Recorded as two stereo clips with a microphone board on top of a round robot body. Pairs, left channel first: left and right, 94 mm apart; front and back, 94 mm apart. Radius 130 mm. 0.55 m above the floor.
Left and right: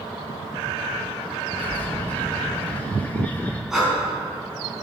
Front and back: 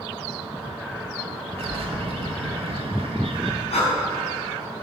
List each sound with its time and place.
1.6 s a bird: 165° left, 1.3 m
3.7 s breathing: 5° right, 4 m